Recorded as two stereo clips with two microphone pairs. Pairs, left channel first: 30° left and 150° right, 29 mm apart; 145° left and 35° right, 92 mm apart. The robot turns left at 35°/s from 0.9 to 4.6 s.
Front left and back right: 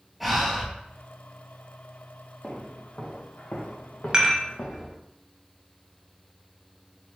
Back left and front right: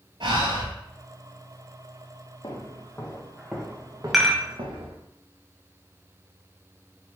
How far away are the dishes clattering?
About 0.7 m.